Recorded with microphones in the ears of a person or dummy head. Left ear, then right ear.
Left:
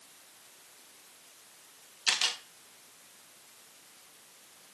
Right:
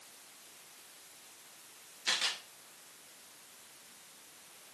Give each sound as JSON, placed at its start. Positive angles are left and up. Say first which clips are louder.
{"t": 2.1, "sound": "a camera shutter", "louder": "left 4 dB", "side_deg": 30, "distance_m": 1.7}